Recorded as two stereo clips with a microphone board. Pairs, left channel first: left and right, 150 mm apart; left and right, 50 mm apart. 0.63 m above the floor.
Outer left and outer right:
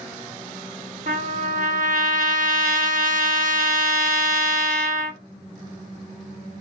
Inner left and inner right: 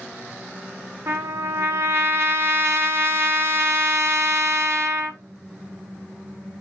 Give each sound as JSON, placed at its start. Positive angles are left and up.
{"t": 1.1, "sound": "a trumpet", "side_deg": -60, "distance_m": 0.6}